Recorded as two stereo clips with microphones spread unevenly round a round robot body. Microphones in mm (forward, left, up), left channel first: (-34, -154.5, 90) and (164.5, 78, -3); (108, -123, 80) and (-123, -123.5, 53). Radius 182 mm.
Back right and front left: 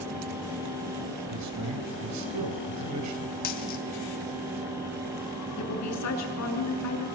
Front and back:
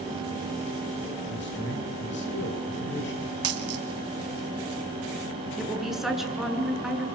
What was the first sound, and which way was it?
A man speaking, 50° left.